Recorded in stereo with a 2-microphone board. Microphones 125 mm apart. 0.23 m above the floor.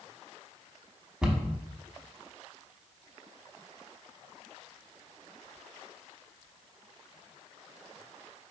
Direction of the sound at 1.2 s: 5° right (ahead or behind).